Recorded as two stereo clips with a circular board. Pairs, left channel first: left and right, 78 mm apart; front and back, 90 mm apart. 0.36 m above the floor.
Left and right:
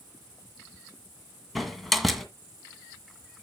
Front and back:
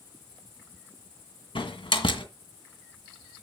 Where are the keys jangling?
No keys jangling in this recording.